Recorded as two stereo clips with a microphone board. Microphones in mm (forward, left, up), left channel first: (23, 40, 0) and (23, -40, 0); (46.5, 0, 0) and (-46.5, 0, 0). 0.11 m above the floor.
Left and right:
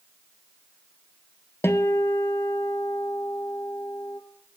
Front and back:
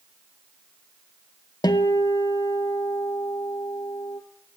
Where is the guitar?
35° left, 0.5 m.